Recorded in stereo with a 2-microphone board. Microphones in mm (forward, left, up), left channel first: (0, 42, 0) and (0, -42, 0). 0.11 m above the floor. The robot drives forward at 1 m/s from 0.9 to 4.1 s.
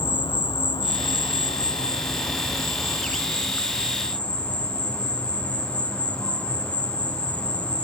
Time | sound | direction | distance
0.0 | an insect | 75° left (ahead or behind) | 1.0 m